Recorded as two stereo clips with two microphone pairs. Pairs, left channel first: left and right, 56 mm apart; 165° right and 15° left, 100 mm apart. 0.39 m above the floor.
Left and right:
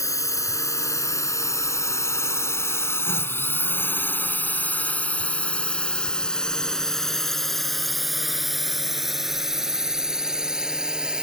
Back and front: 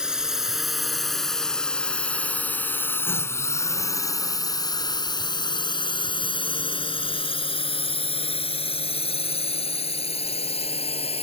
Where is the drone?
100° left; by 11.2 s 165° right.